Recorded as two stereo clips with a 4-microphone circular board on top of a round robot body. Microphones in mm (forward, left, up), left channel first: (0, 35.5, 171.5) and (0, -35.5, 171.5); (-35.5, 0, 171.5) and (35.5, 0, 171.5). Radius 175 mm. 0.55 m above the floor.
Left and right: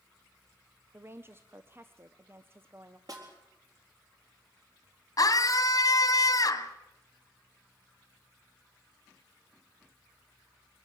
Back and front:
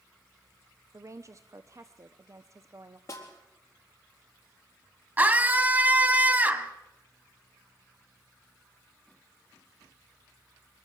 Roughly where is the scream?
Ahead left.